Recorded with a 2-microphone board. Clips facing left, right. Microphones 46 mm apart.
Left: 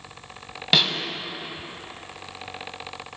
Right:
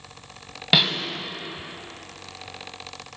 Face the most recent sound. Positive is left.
turn(degrees=-10)  # may be behind; listen again after turning